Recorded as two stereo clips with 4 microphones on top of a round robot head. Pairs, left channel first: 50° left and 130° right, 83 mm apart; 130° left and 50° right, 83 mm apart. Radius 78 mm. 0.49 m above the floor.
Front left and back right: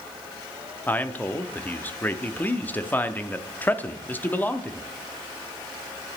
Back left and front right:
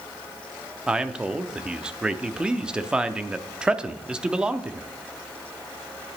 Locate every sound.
0.9 s a man speaking: 15° left, 0.7 m